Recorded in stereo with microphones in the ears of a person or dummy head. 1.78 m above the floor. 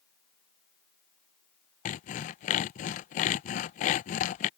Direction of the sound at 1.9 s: 40° left (ahead or behind).